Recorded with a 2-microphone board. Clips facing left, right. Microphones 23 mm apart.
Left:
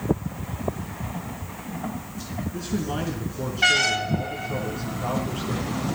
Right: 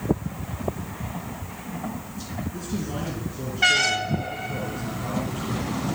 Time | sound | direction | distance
2.5 | a man speaking | 30° left (ahead or behind) | 3 m